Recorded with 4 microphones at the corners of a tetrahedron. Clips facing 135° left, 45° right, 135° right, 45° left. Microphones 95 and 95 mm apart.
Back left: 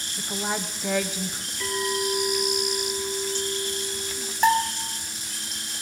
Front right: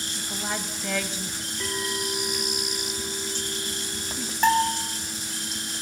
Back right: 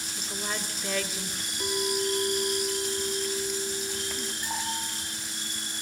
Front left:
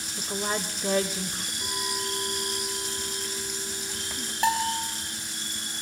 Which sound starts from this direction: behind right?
A clink, at 1.6 s.